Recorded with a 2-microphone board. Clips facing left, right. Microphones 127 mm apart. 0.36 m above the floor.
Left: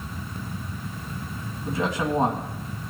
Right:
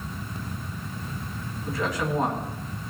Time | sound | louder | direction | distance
1.6 | a man speaking | left 2 dB | 25° left (ahead or behind) | 2.5 m